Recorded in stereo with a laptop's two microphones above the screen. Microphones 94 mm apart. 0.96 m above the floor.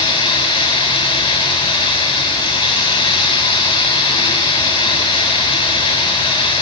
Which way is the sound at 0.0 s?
80° left.